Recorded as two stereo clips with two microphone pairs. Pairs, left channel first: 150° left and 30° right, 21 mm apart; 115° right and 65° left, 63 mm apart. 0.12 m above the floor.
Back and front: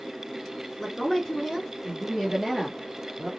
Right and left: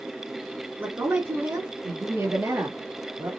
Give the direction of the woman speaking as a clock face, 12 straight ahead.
10 o'clock.